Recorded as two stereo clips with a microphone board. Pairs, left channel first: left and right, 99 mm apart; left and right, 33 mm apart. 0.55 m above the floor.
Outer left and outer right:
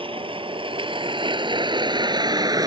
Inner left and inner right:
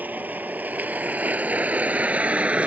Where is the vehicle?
65° right (ahead or behind); by 2.7 s 40° right (ahead or behind).